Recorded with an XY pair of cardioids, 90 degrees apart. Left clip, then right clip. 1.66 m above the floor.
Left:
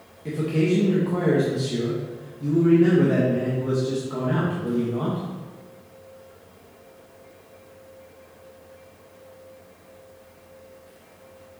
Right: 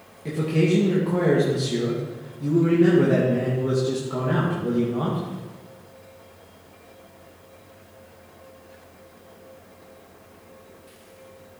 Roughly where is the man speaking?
Ahead.